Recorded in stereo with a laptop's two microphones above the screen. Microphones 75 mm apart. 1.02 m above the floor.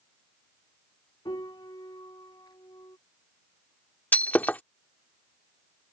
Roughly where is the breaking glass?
Left.